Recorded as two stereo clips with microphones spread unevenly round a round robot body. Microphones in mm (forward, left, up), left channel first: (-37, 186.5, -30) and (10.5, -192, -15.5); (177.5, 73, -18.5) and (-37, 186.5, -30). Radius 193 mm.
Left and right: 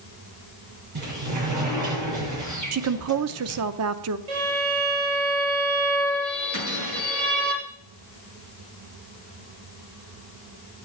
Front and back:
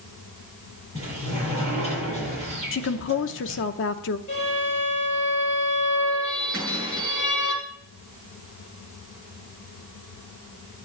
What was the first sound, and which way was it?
A sliding door, 130° right.